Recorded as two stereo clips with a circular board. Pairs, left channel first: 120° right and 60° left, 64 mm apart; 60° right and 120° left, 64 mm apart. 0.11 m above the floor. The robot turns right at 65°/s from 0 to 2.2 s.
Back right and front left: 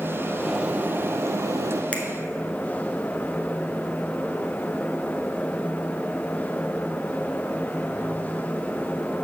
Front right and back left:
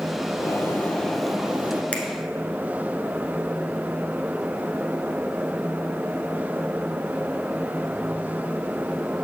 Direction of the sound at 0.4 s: 25° right.